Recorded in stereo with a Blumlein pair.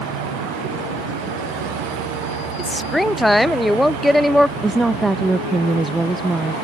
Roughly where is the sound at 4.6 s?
Ahead.